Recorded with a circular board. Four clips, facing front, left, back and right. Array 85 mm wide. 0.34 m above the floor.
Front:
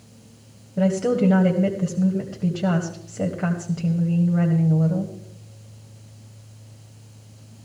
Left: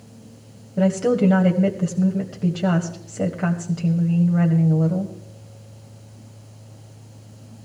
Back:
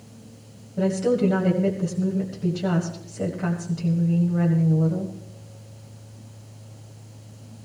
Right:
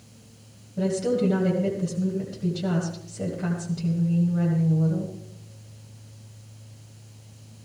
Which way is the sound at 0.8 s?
65° left.